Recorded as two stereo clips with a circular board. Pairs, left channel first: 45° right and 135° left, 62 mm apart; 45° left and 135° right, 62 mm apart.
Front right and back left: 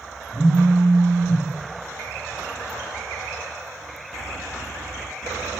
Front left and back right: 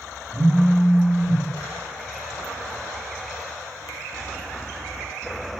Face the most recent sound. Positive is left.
turn(degrees=-140)